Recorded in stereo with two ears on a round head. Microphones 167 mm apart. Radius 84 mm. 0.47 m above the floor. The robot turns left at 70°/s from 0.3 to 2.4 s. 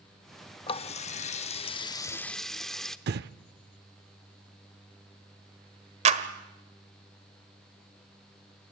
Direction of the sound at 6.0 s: 35° right (ahead or behind).